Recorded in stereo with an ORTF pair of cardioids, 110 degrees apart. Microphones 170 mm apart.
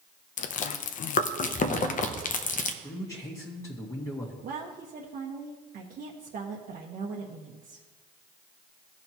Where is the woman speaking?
60° right, 1.3 m.